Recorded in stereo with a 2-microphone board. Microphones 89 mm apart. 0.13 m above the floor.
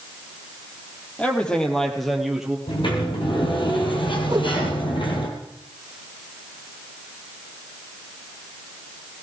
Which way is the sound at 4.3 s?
50° right (ahead or behind).